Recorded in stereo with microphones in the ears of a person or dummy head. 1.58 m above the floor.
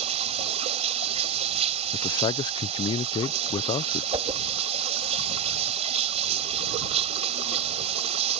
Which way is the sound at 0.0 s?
35° right (ahead or behind).